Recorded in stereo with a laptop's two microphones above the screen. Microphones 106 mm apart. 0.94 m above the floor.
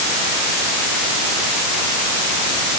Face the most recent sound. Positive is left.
No sound to turn to.